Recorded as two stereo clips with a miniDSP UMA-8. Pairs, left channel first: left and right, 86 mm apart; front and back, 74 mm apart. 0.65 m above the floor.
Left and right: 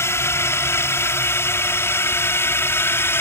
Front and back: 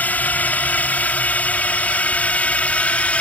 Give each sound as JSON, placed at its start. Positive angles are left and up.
{"t": 0.0, "sound": "a drone", "azimuth_deg": 55}